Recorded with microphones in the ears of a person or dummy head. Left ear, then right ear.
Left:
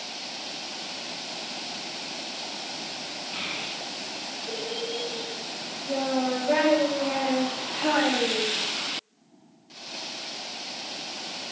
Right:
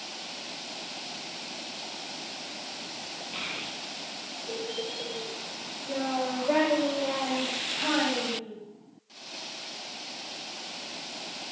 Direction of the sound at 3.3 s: 15° right (ahead or behind).